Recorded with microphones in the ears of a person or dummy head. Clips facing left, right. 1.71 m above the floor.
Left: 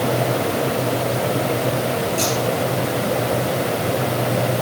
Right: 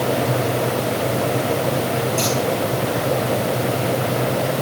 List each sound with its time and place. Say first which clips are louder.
2.2 s scissors: even; 15° right (ahead or behind), 7.5 m